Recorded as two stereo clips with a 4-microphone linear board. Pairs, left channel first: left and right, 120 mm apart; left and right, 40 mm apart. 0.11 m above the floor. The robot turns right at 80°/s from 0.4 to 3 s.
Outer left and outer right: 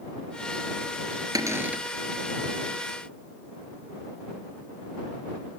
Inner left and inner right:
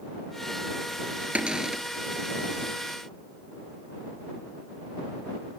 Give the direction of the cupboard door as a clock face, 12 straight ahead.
2 o'clock.